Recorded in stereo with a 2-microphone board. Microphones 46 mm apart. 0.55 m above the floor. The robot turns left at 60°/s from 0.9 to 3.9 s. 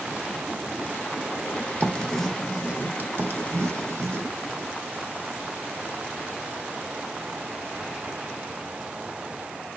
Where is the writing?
30° left (ahead or behind), 0.8 m; by 4.3 s 75° right (ahead or behind), 0.8 m.